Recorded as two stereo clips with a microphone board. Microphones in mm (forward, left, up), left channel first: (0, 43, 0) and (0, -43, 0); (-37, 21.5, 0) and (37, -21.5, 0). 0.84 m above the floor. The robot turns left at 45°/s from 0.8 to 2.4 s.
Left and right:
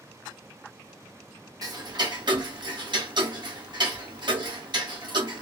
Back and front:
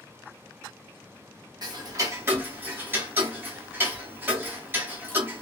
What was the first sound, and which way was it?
Ticking, 55° right.